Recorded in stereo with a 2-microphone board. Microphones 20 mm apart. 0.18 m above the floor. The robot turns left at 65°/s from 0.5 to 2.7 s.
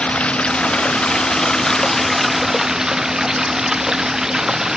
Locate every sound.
0.0 s running water: 115° left; by 4.8 s 25° right